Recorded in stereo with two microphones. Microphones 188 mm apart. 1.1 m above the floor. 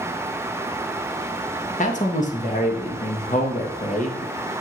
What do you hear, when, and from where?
1.8 s a man speaking: 40° left (ahead or behind), 1.5 m